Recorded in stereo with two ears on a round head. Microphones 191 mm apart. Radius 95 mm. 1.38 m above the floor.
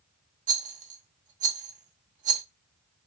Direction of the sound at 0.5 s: 35° right (ahead or behind).